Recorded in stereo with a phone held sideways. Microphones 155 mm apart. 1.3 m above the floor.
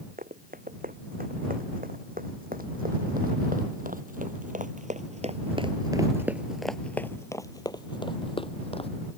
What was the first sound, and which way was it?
Running footsteps, 70° right (ahead or behind).